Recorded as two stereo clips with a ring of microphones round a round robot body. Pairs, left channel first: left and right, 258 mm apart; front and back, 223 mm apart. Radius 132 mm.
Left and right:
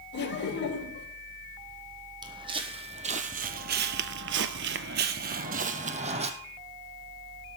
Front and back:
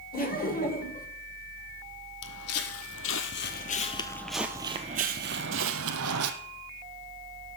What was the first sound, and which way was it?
Laughter, 45° left.